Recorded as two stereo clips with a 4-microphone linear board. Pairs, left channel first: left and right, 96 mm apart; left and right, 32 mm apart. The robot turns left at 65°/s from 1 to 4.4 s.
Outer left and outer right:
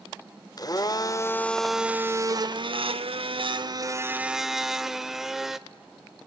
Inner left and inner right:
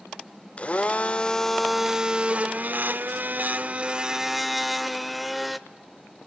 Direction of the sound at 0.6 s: 45° left.